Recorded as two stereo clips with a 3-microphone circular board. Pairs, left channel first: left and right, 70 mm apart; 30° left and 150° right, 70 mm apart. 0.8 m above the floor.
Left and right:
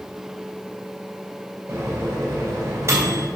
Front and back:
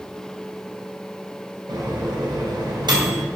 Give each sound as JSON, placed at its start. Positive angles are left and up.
{"t": 1.7, "sound": "a microwave", "azimuth_deg": -145, "distance_m": 3.0}